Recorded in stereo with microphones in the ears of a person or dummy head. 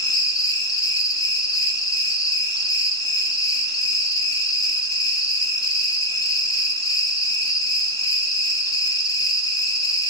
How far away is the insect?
About 0.7 m.